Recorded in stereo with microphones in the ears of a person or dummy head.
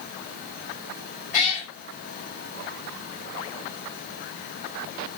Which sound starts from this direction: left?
A cat meowing, at 1.3 s.